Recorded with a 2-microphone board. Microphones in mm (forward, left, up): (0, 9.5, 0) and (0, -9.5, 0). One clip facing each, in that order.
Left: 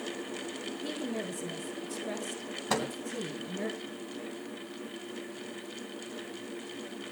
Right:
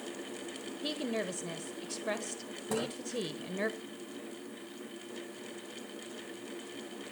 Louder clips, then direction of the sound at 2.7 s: Left 3 dB; 50° left (ahead or behind).